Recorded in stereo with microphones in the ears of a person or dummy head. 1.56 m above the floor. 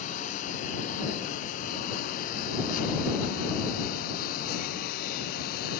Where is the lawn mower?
40° left (ahead or behind); by 5.8 s 50° left (ahead or behind).